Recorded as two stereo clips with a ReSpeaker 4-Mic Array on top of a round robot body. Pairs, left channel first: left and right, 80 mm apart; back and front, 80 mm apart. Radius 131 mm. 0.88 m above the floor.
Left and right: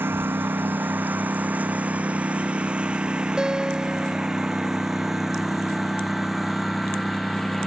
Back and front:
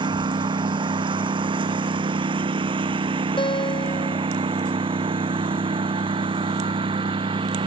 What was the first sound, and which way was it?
A lawn mower, 25° right.